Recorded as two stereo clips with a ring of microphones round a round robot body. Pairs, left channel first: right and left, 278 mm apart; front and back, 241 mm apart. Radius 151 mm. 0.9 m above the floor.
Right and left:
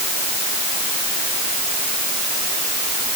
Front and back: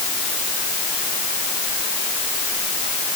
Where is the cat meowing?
I don't hear a cat meowing.